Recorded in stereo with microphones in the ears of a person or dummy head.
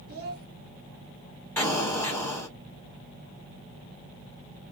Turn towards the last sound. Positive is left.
turn(degrees=10)  # may be behind; listen again after turning